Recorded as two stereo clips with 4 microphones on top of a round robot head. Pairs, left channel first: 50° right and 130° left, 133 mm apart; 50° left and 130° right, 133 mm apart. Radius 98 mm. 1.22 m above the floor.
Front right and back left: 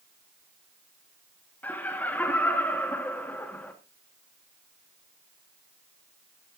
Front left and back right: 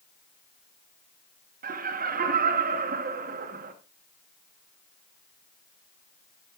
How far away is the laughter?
About 1.3 m.